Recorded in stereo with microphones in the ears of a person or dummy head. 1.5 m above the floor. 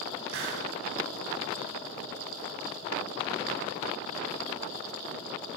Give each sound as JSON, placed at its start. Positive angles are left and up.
{"t": 0.3, "sound": "a hiss", "side_deg": -85, "distance_m": 6.5}